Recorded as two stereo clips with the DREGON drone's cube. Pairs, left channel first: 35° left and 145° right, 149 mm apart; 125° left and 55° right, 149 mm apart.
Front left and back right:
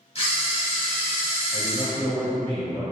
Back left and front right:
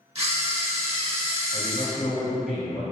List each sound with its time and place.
0.1 s a camera shutter: 10° right, 1.0 m
1.5 s a man speaking: 135° right, 1.3 m